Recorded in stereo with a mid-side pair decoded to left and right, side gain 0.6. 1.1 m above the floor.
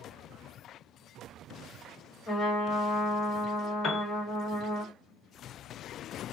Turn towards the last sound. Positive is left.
turn(degrees=45)